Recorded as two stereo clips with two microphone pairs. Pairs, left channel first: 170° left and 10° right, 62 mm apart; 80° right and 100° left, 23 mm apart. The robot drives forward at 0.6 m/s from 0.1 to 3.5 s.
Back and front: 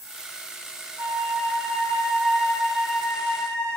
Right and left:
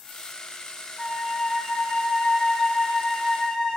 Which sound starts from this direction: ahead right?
A flute, at 1.0 s.